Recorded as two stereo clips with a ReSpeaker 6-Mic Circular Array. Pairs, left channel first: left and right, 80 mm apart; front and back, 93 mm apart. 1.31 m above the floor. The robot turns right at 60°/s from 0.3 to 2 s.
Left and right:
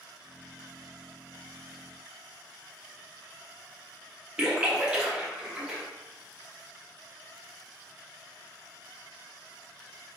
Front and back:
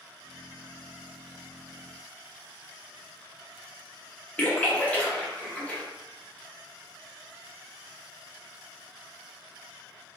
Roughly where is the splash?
Ahead right.